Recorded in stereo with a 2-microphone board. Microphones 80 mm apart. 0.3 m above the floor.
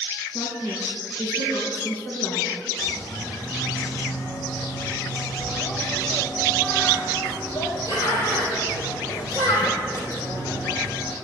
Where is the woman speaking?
50° left (ahead or behind), 3.5 m.